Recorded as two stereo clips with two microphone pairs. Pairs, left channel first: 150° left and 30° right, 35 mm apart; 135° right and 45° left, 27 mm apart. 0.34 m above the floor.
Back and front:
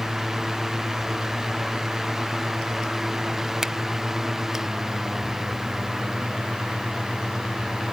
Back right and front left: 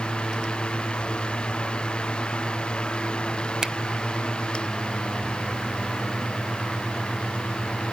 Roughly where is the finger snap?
Ahead.